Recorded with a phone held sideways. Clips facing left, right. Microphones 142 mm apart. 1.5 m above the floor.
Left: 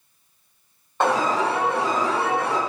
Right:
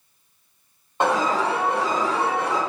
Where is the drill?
No drill in this recording.